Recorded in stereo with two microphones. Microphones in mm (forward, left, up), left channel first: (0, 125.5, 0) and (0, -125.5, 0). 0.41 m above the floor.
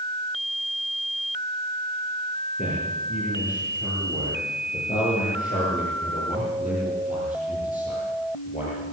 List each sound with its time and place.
2.6 s a man speaking: 35° left (ahead or behind), 9.5 m